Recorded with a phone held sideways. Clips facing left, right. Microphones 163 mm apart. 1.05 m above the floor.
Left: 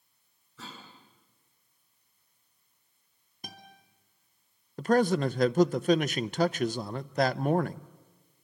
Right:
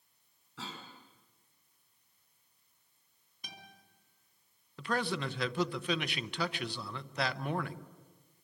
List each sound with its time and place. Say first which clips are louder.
0.6 s a cough: right 1 dB; 75° right (ahead or behind), 8 m
3.4 s a guitar: left 5 dB; 45° left (ahead or behind), 3 m
4.8 s a man speaking: left 10 dB; 45° left (ahead or behind), 0.6 m